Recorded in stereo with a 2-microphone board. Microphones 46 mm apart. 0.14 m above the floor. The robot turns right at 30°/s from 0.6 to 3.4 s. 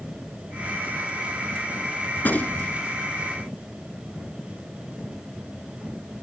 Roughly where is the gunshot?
Left.